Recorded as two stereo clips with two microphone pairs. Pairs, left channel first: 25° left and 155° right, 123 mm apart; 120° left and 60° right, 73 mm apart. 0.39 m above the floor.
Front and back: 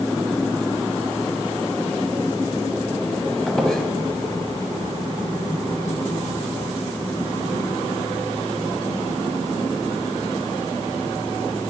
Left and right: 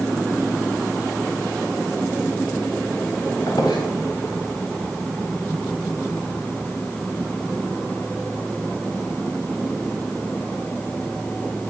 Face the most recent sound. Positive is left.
turn(degrees=110)